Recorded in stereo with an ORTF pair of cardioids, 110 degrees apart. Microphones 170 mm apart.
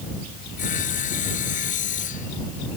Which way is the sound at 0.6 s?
50° left.